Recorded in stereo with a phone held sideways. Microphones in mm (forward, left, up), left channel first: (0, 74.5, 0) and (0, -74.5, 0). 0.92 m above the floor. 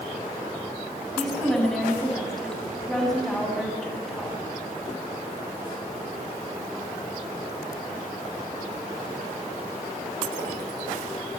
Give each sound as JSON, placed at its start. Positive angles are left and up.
{"t": 1.2, "sound": "a woman speaking", "side_deg": 0, "distance_m": 8.0}